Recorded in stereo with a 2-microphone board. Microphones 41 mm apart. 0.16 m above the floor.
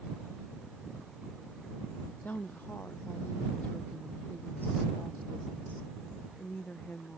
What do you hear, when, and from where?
2.2 s a woman speaking: 45° left (ahead or behind); by 7.2 s 40° left (ahead or behind)